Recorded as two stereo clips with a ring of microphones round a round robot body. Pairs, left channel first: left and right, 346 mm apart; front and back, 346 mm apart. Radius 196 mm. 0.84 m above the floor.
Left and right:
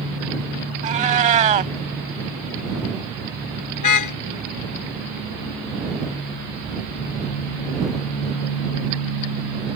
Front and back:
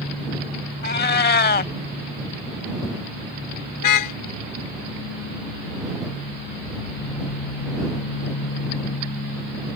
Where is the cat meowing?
35° right.